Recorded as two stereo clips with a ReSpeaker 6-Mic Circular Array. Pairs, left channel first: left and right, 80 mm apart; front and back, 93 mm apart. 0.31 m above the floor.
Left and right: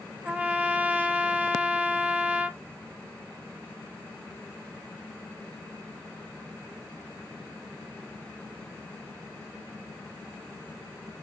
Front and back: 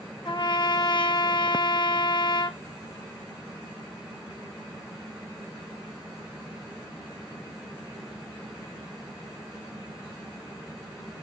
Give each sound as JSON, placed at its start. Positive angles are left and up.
{"t": 0.2, "sound": "a trumpet", "azimuth_deg": -20, "distance_m": 0.6}